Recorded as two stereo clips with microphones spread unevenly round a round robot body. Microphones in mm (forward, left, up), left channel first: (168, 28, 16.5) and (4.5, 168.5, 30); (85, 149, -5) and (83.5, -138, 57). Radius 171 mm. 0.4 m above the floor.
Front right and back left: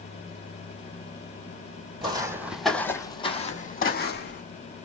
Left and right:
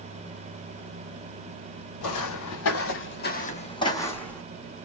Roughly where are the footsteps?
Left.